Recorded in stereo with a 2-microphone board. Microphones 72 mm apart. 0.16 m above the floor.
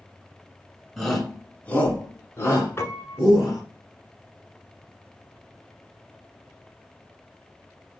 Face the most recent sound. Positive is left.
turn(degrees=35)  # may be behind; listen again after turning